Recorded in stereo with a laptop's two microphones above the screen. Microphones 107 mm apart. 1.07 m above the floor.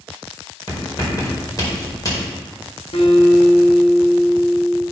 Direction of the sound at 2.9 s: 65° left (ahead or behind).